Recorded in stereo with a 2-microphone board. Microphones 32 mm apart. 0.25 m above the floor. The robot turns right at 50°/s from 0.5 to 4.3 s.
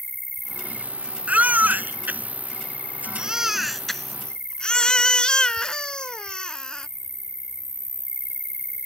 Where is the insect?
5° left; by 8.8 s 165° right.